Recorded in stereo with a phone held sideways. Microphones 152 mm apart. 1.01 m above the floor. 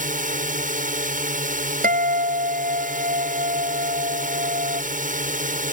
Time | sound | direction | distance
0.0 | a drone | 65° right (ahead or behind) | ?
1.8 | a guitar | 80° right | ?